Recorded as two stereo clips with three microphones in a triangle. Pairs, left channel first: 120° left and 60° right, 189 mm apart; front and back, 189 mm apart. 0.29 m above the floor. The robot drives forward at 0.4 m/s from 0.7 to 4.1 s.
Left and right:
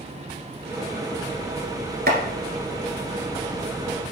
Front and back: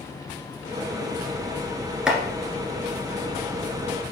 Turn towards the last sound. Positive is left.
turn(degrees=-120)